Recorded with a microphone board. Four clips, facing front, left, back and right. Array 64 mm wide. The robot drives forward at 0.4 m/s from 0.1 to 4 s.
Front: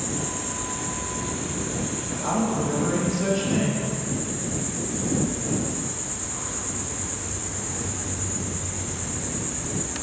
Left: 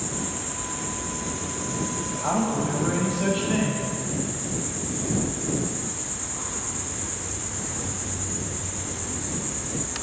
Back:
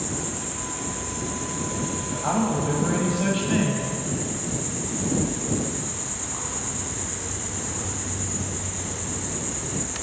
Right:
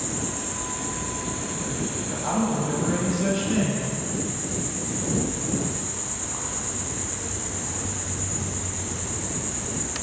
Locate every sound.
0.0 s an insect: 45° right, 1.3 m; by 10.0 s 140° right, 1.3 m
2.2 s a man speaking: 130° left, 1.0 m; by 3.9 s 160° left, 1.4 m